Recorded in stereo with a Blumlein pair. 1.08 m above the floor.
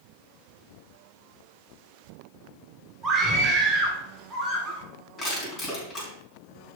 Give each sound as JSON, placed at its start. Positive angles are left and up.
{"t": 3.0, "sound": "a scream", "azimuth_deg": -15, "distance_m": 3.5}
{"t": 5.2, "sound": "crushing", "azimuth_deg": 20, "distance_m": 5.0}